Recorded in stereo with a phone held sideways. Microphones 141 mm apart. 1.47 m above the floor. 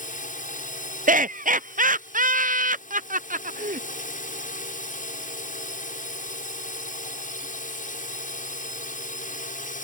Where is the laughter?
70° right (ahead or behind).